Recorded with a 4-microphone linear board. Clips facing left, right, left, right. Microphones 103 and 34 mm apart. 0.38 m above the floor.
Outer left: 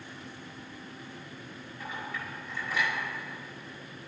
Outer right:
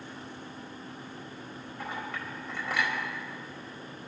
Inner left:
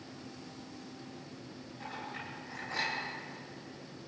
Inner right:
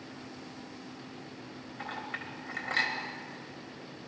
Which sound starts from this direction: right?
A clink, at 1.8 s.